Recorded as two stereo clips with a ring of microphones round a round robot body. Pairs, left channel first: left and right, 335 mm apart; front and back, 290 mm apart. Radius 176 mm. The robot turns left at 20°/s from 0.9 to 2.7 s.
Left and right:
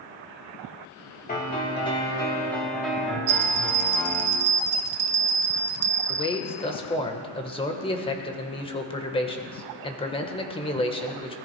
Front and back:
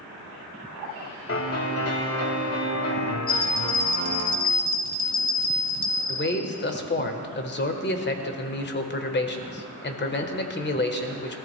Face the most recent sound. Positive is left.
turn(degrees=25)